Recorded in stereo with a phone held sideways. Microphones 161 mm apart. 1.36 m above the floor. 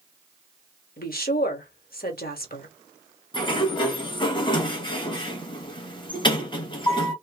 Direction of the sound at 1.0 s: 70° left (ahead or behind).